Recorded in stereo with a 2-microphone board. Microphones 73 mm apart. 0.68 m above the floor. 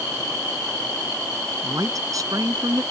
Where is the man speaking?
50° right (ahead or behind).